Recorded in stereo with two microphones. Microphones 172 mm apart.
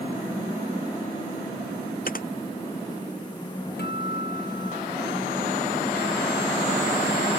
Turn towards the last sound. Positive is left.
turn(degrees=70)  # may be behind; listen again after turning